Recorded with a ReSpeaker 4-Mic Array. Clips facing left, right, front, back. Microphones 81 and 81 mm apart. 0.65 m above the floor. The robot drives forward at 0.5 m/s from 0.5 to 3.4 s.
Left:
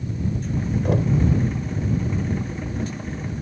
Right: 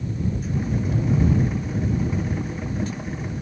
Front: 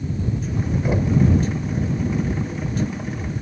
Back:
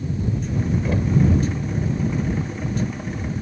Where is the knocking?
75° left, 1.6 m; by 1.2 s 80° left, 1.6 m.